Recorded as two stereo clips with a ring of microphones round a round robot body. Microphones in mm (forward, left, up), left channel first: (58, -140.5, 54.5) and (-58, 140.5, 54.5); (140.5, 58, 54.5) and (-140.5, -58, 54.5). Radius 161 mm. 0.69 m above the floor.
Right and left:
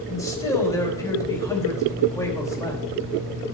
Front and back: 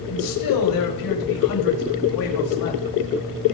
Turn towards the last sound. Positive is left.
turn(degrees=10)